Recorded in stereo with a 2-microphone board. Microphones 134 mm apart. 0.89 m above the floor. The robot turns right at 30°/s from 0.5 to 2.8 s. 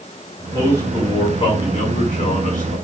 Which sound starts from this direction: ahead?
A man speaking, at 0.4 s.